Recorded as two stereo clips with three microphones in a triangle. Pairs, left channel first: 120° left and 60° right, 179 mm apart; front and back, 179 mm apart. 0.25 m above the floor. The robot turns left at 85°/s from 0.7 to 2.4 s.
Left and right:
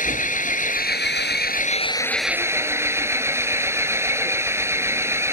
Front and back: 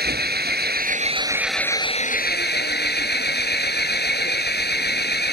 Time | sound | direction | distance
0.0 | an engine running | 160° left | ?